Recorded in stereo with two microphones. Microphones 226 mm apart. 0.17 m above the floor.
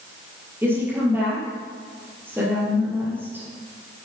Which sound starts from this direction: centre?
A woman speaking, at 0.6 s.